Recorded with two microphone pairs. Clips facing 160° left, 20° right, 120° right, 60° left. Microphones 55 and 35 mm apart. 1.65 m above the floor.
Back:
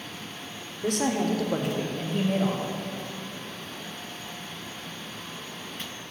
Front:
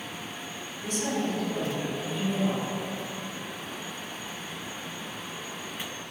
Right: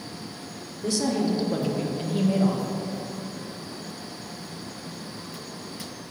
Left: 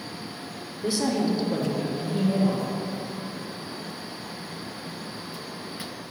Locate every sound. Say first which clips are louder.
0.8 s a woman speaking: back 4 dB, even; 130° left, 0.8 m; by 2.7 s 155° right, 1.0 m